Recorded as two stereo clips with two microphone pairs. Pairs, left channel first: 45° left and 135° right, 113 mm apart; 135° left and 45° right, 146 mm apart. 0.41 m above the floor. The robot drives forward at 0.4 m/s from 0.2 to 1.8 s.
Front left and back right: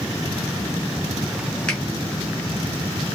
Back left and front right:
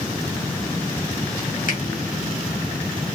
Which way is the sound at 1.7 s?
125° left.